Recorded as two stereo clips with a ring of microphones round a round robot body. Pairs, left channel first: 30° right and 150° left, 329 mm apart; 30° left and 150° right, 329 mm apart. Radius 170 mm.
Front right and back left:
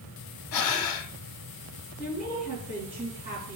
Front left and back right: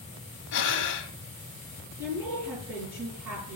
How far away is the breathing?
About 0.8 m.